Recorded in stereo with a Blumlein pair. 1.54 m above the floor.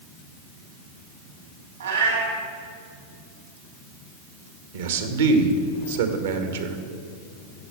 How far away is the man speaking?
About 1.8 m.